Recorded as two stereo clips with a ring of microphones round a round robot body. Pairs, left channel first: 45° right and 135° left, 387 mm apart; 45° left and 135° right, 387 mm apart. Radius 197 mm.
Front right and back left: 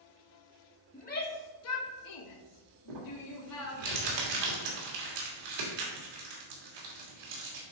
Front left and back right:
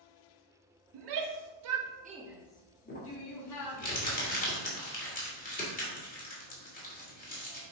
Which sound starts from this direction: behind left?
Crumpling, at 2.9 s.